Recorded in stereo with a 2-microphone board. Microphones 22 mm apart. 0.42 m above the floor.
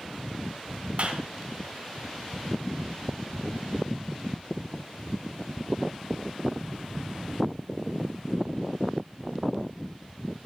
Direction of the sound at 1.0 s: 45° right (ahead or behind).